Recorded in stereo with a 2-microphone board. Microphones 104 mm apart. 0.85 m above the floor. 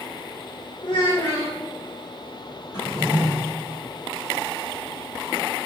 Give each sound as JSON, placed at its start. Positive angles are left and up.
{"t": 0.8, "sound": "a child speaking", "side_deg": 50, "distance_m": 1.4}
{"t": 2.7, "sound": "a drawer", "side_deg": 45, "distance_m": 3.5}